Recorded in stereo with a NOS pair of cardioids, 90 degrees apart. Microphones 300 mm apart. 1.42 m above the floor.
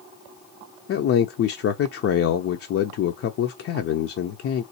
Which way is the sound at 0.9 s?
50° left.